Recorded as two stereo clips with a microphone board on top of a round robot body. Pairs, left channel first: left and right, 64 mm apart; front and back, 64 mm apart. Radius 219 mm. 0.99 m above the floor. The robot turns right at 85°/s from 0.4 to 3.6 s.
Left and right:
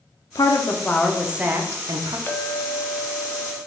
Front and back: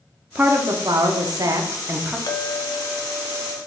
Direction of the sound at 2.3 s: 25° left.